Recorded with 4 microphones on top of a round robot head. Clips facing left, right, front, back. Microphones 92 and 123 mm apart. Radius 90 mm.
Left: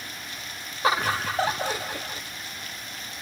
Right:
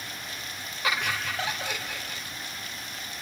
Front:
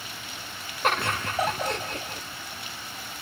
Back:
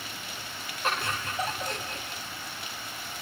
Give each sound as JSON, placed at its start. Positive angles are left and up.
{"t": 0.8, "sound": "laughter", "azimuth_deg": 30, "distance_m": 1.1}